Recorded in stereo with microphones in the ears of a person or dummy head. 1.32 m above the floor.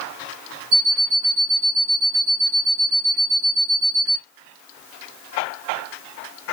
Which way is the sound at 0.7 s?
30° right (ahead or behind).